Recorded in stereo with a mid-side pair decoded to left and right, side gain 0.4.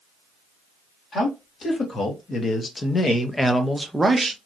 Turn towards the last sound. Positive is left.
turn(degrees=-40)